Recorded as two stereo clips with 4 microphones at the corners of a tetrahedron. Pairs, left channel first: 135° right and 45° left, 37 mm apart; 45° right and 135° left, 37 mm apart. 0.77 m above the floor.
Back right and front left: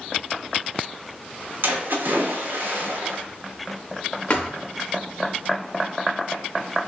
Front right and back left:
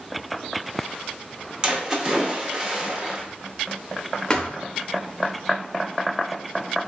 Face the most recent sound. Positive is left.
turn(degrees=-105)